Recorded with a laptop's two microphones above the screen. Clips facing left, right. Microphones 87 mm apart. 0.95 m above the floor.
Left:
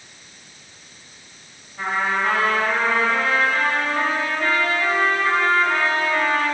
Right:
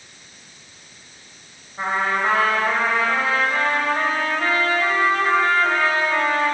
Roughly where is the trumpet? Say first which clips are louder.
Right 1 dB; right.